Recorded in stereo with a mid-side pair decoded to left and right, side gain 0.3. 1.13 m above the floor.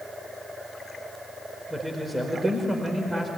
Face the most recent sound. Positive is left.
turn(degrees=-15)